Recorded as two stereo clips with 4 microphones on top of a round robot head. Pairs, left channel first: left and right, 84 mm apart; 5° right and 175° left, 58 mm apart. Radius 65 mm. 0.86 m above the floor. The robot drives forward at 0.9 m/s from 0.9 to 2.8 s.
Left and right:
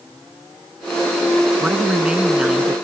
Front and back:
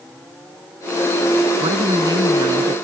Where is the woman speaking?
170° right.